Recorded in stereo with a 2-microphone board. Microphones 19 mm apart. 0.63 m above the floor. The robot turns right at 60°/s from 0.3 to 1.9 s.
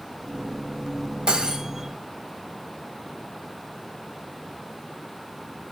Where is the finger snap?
No finger snap in this recording.